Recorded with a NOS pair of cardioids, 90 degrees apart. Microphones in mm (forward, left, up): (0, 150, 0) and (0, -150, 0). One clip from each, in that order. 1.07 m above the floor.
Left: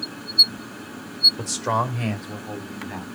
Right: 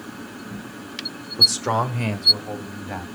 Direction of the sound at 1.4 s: 5° right.